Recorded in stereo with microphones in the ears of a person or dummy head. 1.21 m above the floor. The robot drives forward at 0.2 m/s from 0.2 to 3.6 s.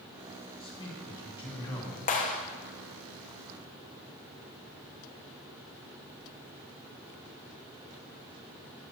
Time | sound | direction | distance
0.6 | a man speaking | 30° left (ahead or behind) | 1.7 m
2.1 | a clap | 40° left (ahead or behind) | 0.8 m